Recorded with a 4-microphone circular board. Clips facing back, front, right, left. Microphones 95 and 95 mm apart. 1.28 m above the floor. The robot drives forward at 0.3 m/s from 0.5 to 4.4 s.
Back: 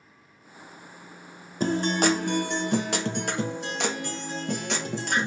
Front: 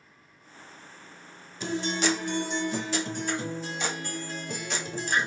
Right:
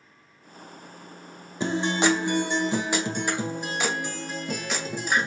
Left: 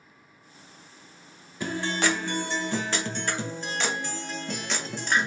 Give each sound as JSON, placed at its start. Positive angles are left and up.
{"t": 1.6, "sound": "a guitar", "azimuth_deg": -150, "distance_m": 0.5}